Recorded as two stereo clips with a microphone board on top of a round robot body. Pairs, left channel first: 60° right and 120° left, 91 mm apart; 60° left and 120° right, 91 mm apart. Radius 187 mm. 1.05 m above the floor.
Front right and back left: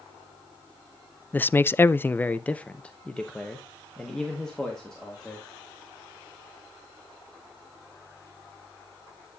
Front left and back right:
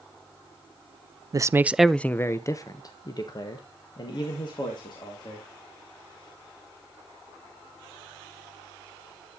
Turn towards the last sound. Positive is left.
turn(degrees=25)